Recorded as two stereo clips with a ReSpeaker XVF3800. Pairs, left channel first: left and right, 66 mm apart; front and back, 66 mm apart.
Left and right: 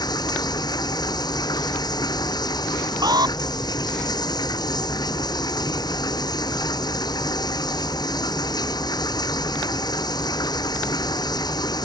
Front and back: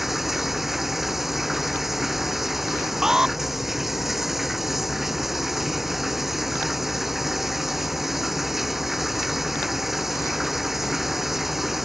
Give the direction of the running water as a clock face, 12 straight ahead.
9 o'clock.